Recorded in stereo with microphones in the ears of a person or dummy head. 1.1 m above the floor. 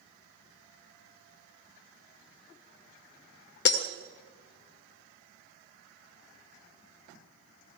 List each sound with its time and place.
3.6 s breaking glass: 55° left (ahead or behind), 1.7 m